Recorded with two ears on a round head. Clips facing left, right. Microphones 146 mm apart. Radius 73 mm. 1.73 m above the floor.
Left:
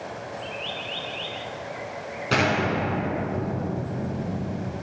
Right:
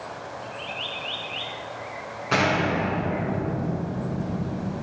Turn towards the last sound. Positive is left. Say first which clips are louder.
# even
turn(degrees=40)  # may be behind; listen again after turning